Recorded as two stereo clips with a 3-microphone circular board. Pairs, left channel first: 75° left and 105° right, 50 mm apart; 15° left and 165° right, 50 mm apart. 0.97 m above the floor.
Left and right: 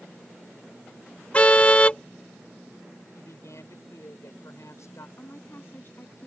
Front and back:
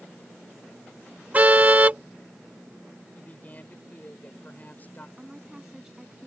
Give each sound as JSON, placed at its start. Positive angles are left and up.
{"t": 1.3, "sound": "a car horn", "azimuth_deg": 135}
{"t": 3.1, "sound": "a woman speaking", "azimuth_deg": 70}
{"t": 5.2, "sound": "a woman speaking", "azimuth_deg": 115}